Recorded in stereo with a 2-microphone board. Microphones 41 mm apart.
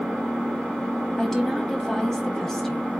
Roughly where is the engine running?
Left.